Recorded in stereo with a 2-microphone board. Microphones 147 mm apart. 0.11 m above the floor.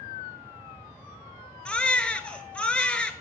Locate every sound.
1.6 s a baby crying: 10° left (ahead or behind), 0.5 m